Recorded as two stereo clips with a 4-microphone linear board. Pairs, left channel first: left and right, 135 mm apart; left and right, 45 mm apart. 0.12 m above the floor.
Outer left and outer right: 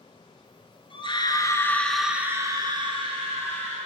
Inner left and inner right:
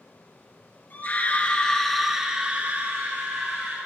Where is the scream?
40° left (ahead or behind), 2.0 m; by 3.8 s 55° right (ahead or behind), 2.5 m.